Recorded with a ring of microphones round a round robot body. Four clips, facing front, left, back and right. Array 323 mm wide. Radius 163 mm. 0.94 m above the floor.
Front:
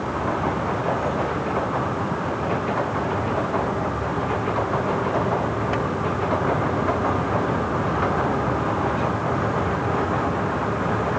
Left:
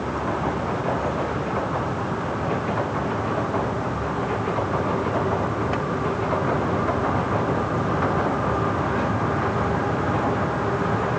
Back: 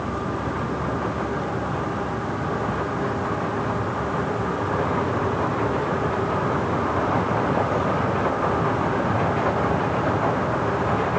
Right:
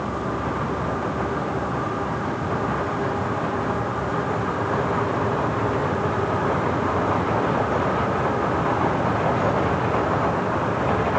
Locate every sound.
Only background noise.